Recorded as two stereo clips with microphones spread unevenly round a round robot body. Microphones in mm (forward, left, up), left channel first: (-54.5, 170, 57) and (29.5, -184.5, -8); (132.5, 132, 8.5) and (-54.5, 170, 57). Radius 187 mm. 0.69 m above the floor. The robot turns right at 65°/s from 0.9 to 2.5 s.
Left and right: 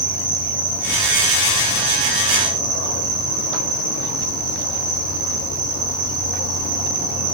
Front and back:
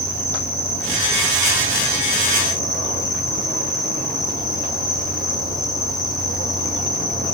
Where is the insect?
170° right, 8.5 m; by 7.3 s 65° right, 8.5 m.